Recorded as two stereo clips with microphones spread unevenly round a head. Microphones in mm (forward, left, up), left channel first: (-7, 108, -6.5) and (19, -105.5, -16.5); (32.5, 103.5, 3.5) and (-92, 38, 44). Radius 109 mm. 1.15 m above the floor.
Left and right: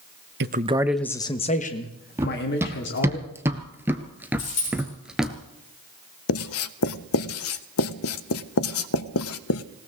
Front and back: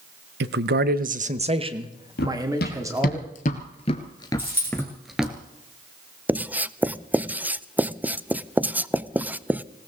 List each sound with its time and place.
0.4 s a man speaking: 130° right, 0.7 m; by 3.2 s 135° left, 2.5 m
2.2 s running footsteps: 5° right, 1.8 m; by 5.3 s 175° right, 1.2 m
4.4 s a dropped coin: 130° left, 10 m
6.3 s writing: 125° left, 0.5 m